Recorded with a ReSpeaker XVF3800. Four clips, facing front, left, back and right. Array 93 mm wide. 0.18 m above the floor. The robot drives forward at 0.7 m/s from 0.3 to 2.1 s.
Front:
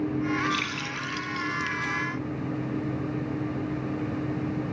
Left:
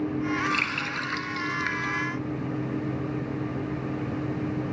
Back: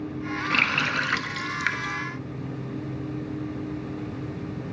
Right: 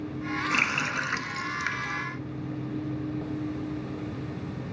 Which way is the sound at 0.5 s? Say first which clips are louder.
Right 1 dB, back 6 dB; 160° right.